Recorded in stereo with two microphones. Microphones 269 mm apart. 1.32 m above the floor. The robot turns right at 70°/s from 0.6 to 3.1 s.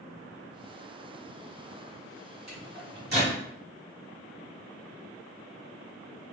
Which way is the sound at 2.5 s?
80° right.